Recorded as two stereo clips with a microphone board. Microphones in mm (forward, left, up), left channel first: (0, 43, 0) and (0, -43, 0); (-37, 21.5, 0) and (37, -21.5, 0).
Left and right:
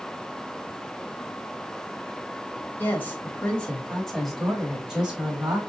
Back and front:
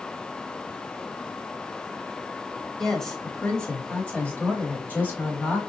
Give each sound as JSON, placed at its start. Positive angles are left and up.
{"t": 2.8, "sound": "a woman speaking", "azimuth_deg": 70, "distance_m": 1.4}